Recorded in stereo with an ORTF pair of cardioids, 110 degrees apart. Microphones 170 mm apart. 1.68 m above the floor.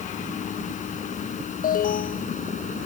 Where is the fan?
45° left.